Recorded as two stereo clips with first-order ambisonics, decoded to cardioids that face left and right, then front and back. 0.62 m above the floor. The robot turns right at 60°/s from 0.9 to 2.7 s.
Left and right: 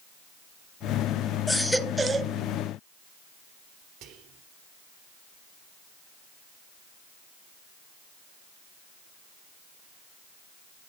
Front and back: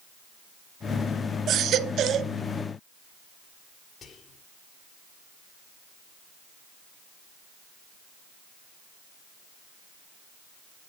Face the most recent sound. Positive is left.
turn(degrees=-65)